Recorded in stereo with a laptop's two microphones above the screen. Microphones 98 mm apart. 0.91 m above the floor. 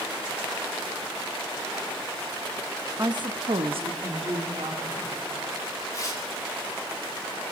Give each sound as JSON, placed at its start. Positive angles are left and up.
{"t": 3.0, "sound": "a woman speaking", "side_deg": -35, "distance_m": 0.8}
{"t": 5.9, "sound": "tearing paper", "side_deg": 35, "distance_m": 2.5}